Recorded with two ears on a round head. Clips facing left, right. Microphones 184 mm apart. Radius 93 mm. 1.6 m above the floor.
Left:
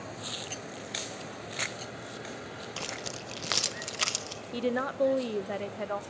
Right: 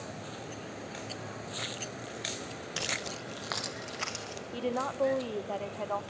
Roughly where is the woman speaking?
Left.